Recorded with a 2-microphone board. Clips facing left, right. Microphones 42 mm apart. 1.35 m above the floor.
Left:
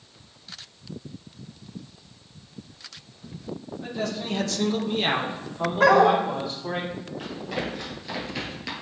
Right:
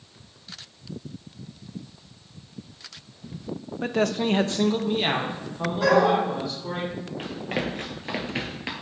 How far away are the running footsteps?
About 2 m.